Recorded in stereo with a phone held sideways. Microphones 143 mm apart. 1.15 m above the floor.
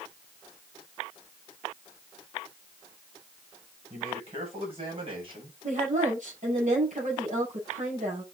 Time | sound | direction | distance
3.9 | a man speaking | 50° right (ahead or behind) | 7 m
5.6 | a woman speaking | 60° right (ahead or behind) | 7 m